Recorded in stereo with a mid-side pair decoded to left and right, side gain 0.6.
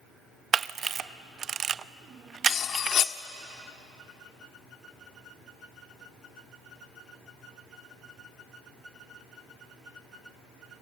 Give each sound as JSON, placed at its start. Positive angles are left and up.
{"t": 0.5, "sound": "a camera shutter", "azimuth_deg": -40, "distance_m": 0.6}
{"t": 2.5, "sound": "cutlery clinking", "azimuth_deg": 50, "distance_m": 1.2}